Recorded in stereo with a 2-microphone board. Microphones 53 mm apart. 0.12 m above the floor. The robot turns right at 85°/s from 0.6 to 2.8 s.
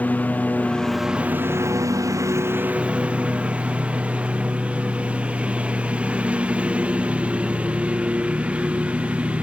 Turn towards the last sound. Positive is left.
turn(degrees=-20)